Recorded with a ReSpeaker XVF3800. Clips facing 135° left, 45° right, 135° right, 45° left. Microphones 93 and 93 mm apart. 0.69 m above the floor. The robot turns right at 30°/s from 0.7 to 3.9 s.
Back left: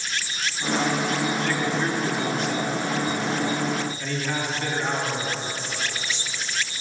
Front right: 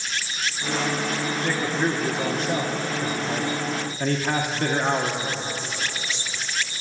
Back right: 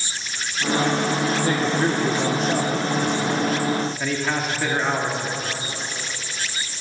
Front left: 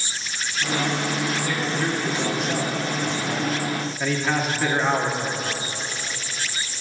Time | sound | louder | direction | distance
1.4 | a man speaking | even, back right 4 dB | 120° right | 1.2 m